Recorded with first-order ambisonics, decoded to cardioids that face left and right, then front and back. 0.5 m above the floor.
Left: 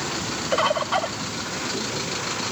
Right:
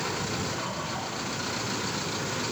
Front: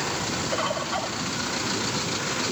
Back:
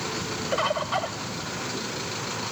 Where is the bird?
100° left, 0.6 m.